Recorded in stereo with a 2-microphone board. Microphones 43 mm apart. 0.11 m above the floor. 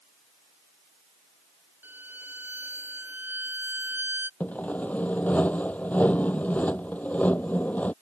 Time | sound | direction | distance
1.8 | a violin | 50° right (ahead or behind) | ?
4.4 | sawing | 35° left (ahead or behind) | ?